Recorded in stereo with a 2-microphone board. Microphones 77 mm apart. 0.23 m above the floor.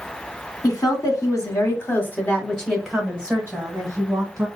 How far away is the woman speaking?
About 2 m.